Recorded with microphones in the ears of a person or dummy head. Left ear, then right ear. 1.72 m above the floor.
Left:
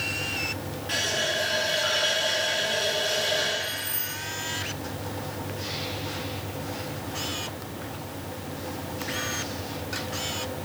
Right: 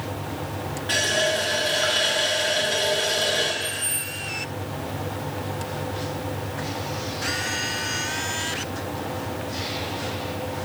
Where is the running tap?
15° right (ahead or behind), 0.9 m.